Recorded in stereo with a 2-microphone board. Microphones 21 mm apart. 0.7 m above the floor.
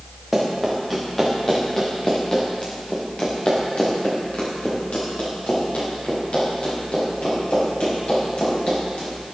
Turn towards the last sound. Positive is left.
turn(degrees=85)